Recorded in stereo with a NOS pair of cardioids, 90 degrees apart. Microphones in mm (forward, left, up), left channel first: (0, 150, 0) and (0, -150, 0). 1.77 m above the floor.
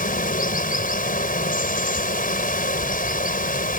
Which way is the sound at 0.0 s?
25° left.